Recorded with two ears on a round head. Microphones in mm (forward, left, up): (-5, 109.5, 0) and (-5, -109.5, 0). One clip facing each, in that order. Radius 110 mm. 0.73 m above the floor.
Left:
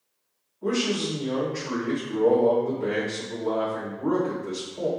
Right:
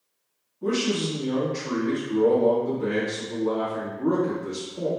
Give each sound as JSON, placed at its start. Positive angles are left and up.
{"t": 0.6, "sound": "a man speaking", "side_deg": -50, "distance_m": 1.3}